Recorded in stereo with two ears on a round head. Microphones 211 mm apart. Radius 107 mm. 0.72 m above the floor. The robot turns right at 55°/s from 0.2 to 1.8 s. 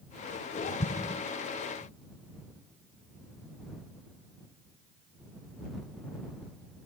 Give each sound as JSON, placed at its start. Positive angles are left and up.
{"t": 0.8, "sound": "an explosion", "side_deg": 35}